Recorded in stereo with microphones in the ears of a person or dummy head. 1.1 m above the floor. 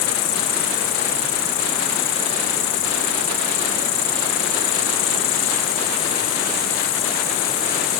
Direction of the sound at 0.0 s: 45° left (ahead or behind).